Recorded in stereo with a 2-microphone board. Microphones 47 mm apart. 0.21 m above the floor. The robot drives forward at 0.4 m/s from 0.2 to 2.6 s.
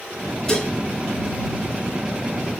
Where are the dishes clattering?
20° left (ahead or behind), 1.4 m.